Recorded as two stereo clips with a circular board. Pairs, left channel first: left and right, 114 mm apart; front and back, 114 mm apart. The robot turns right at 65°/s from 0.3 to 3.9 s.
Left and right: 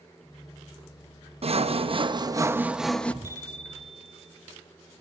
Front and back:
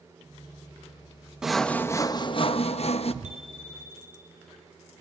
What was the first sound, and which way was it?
Sawing, 95° right.